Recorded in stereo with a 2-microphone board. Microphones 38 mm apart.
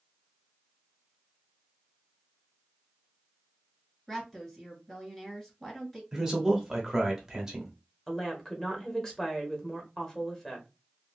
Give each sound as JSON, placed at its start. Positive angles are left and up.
{"t": 4.1, "sound": "a woman speaking", "side_deg": 15, "distance_m": 2.0}
{"t": 6.1, "sound": "a man speaking", "side_deg": -15, "distance_m": 1.0}
{"t": 8.1, "sound": "a woman speaking", "side_deg": 15, "distance_m": 1.0}